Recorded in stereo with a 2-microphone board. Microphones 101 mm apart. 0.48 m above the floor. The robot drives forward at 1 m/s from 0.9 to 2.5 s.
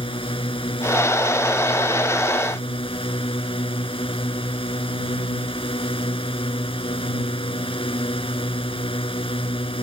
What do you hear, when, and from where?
0.0 s a drone: 65° left (ahead or behind)